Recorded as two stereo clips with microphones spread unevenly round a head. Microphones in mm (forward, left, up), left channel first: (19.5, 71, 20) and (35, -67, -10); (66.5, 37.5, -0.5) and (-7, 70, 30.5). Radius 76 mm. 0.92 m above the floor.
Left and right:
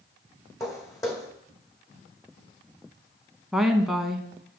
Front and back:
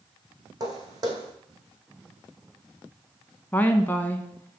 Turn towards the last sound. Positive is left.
turn(degrees=-10)